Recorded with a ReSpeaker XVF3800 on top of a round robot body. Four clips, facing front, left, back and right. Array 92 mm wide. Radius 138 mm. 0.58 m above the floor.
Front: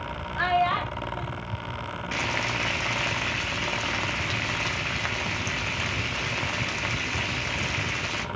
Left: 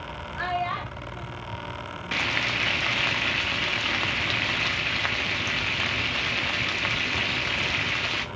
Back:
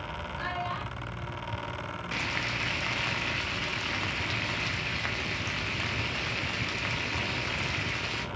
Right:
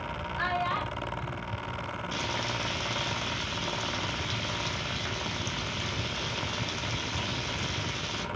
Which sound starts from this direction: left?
Frying, at 2.1 s.